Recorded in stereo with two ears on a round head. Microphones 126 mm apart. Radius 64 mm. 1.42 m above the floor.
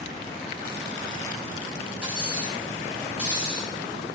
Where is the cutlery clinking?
10° right (ahead or behind), 3.5 m.